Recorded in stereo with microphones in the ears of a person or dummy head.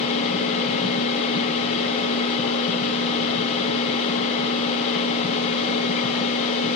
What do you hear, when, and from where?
0.0 s a machine running: 40° left (ahead or behind), 0.8 m